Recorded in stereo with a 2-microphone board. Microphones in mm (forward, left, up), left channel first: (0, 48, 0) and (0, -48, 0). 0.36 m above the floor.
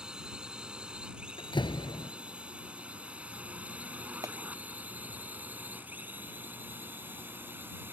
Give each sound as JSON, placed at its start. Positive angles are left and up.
{"t": 0.0, "sound": "a drone", "side_deg": -10}
{"t": 1.4, "sound": "a door slam", "side_deg": 55}
{"t": 4.2, "sound": "a clap", "side_deg": -40}